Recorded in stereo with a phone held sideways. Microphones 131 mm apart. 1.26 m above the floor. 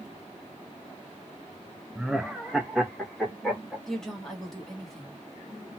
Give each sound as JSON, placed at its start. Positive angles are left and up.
{"t": 1.9, "sound": "laughter", "side_deg": -5, "distance_m": 0.6}
{"t": 3.9, "sound": "a woman speaking", "side_deg": 5, "distance_m": 1.3}